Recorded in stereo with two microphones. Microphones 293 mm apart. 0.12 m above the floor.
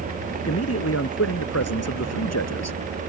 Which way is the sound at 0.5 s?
50° left (ahead or behind).